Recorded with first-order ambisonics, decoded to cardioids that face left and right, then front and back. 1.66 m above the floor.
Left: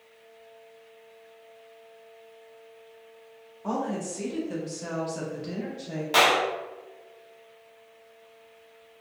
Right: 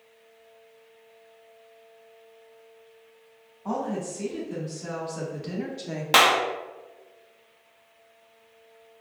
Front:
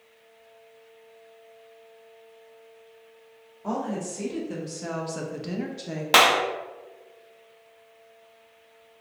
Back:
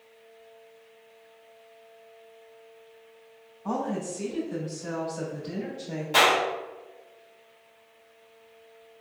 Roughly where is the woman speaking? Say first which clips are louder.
Even, even; ahead left.